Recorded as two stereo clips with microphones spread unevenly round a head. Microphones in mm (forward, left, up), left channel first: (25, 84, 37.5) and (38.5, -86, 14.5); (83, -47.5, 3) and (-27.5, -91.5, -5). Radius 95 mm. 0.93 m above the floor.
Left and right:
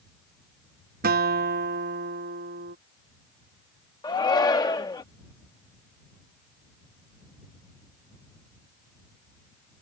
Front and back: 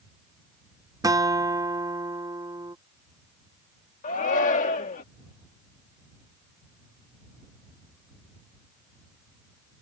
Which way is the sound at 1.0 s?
105° right.